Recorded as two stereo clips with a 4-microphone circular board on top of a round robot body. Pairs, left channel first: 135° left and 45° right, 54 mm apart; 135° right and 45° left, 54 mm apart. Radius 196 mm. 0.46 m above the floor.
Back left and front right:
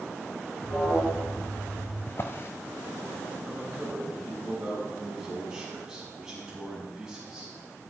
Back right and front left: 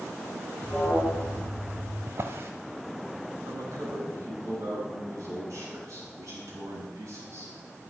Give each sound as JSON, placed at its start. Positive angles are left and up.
{"t": 0.6, "sound": "an alarm", "azimuth_deg": 165, "distance_m": 8.0}
{"t": 2.1, "sound": "a drawer", "azimuth_deg": 90, "distance_m": 0.7}
{"t": 3.5, "sound": "a man speaking", "azimuth_deg": 35, "distance_m": 7.0}